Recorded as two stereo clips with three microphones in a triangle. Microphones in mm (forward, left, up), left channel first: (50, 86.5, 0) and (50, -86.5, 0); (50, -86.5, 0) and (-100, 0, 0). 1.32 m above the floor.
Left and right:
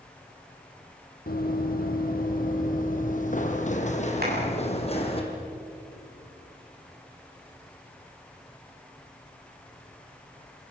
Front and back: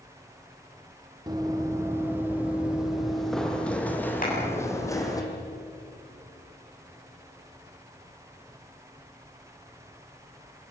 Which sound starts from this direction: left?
Running footsteps, at 1.3 s.